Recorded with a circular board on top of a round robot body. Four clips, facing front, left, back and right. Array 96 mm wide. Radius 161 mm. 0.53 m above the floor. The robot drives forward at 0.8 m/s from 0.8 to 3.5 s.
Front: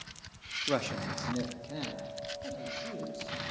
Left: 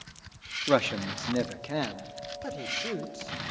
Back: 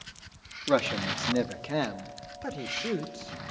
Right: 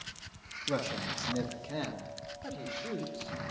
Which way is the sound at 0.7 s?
110° left.